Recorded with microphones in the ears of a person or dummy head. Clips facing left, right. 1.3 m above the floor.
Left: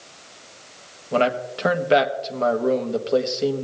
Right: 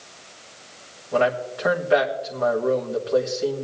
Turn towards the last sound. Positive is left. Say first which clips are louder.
# even
turn(degrees=40)  # may be behind; listen again after turning